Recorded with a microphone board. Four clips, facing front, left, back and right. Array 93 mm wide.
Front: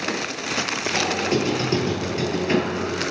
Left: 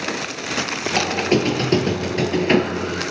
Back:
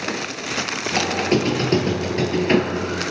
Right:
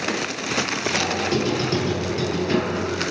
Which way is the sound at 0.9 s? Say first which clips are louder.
Left 5 dB, back 3 dB; 115° left.